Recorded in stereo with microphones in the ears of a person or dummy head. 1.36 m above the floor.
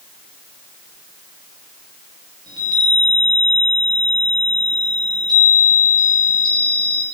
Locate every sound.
2.5 s a chime: 20° right (ahead or behind), 5 m